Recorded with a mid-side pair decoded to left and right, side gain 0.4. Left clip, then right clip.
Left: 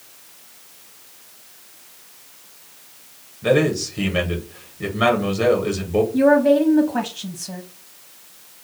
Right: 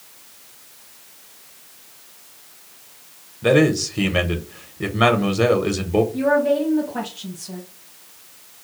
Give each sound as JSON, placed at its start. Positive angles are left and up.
{"t": 3.4, "sound": "a man speaking", "azimuth_deg": -40, "distance_m": 0.8}
{"t": 6.1, "sound": "a woman speaking", "azimuth_deg": 55, "distance_m": 0.7}